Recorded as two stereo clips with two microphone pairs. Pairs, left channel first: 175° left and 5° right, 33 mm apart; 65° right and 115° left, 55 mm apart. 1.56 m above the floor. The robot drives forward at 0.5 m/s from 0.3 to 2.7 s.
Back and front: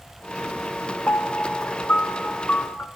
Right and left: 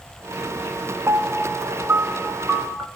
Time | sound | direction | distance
1.1 | a piano | 160° left | 0.8 m